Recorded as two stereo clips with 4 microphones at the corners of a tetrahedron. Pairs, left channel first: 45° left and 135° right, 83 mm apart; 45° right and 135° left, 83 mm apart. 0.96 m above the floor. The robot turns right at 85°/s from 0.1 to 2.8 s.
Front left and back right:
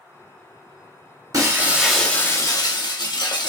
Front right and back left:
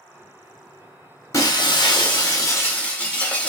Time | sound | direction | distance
1.3 | breaking glass | 95° right | 1.3 m